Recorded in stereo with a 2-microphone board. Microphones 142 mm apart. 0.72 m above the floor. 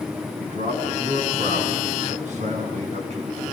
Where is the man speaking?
65° right (ahead or behind), 9 m; by 3.4 s 50° right (ahead or behind), 8 m.